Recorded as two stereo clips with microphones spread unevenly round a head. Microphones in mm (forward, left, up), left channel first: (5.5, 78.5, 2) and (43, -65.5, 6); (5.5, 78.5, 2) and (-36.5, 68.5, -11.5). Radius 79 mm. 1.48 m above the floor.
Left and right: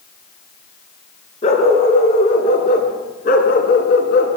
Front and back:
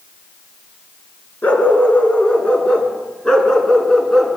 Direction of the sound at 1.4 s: 60° left.